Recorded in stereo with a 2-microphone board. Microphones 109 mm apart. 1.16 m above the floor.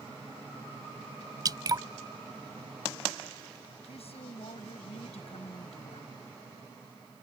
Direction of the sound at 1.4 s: 40° right (ahead or behind).